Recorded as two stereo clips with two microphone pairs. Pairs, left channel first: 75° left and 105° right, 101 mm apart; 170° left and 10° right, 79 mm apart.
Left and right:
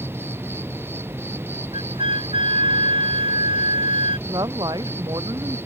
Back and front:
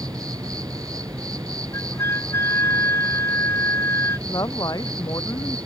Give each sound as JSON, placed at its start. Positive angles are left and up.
{"t": 0.0, "sound": "an insect", "azimuth_deg": -40}
{"t": 1.7, "sound": "a flute", "azimuth_deg": -135}
{"t": 4.3, "sound": "a woman speaking", "azimuth_deg": -155}